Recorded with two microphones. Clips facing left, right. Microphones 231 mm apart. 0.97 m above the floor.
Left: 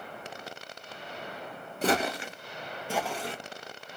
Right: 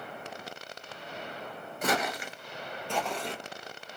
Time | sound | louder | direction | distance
1.8 | footsteps | left 3 dB | 30° left (ahead or behind) | 1.1 m